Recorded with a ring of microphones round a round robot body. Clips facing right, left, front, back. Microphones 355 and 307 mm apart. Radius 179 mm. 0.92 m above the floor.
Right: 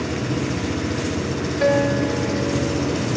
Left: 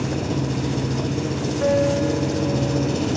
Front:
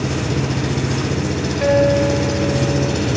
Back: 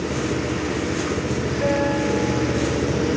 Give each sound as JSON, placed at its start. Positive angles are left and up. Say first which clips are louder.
{"t": 0.0, "sound": "an engine running", "louder": "even, front 2 dB", "azimuth_deg": 10, "distance_m": 6.5}
{"t": 1.6, "sound": "a guitar", "louder": "right 1 dB, front 7 dB", "azimuth_deg": -50, "distance_m": 5.0}